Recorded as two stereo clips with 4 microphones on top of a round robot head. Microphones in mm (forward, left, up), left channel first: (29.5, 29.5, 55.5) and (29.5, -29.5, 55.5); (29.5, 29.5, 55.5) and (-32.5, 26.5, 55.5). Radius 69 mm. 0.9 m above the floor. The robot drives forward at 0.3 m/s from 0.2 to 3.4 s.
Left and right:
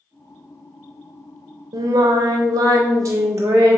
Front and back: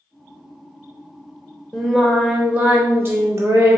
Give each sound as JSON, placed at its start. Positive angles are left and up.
{"t": 1.7, "sound": "singing", "azimuth_deg": -80, "distance_m": 0.5}